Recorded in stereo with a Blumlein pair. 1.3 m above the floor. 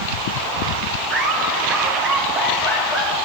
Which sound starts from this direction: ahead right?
Laughter, at 1.1 s.